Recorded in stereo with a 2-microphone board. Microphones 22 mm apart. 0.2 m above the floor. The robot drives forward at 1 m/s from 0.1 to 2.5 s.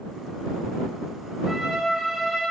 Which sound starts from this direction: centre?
A trumpet, at 1.4 s.